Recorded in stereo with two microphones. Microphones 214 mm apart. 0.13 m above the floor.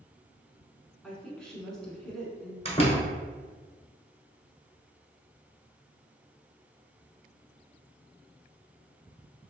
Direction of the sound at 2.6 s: 30° left (ahead or behind).